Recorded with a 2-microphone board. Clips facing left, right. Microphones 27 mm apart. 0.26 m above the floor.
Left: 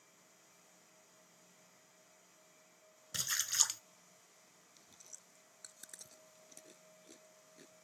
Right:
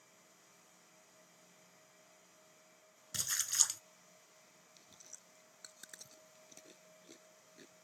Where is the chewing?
10° right (ahead or behind).